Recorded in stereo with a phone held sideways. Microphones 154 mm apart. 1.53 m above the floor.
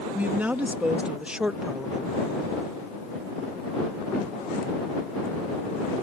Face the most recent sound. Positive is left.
turn(degrees=0)  # may be behind; listen again after turning